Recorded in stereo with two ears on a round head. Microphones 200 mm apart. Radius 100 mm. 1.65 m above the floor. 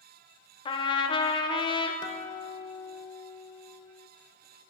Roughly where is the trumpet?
Left.